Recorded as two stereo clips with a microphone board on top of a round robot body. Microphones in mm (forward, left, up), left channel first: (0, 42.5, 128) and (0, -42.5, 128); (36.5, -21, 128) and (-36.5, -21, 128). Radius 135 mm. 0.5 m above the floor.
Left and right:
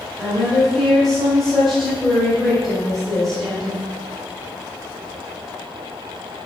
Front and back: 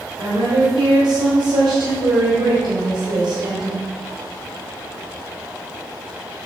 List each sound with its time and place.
0.2 s a woman speaking: straight behind, 3 m